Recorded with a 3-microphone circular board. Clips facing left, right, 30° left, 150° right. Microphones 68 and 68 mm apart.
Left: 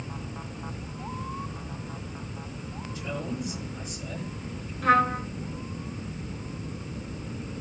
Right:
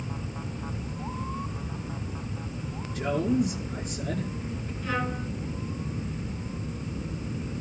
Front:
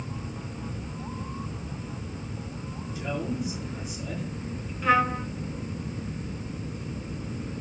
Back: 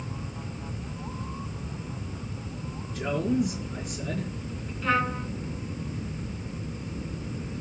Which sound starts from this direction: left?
A trumpet, at 4.8 s.